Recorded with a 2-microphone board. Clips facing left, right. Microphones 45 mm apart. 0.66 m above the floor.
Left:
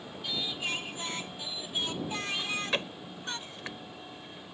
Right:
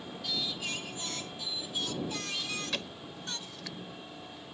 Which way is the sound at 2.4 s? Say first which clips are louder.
Left 4 dB; 35° left (ahead or behind).